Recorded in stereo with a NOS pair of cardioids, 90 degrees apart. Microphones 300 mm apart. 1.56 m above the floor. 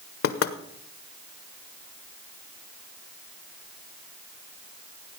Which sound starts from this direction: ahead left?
Knocking, at 0.2 s.